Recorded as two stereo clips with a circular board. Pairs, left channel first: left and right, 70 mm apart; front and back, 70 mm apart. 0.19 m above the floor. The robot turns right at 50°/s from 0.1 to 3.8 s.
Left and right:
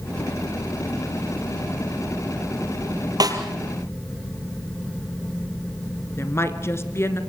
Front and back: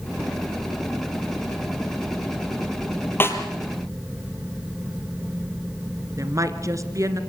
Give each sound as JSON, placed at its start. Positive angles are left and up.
{"t": 3.2, "sound": "a snare drum", "azimuth_deg": -60, "distance_m": 2.5}
{"t": 6.2, "sound": "a woman speaking", "azimuth_deg": 140, "distance_m": 2.0}